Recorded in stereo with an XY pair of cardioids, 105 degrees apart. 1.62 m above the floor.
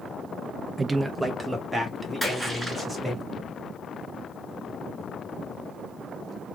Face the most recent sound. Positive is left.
turn(degrees=-15)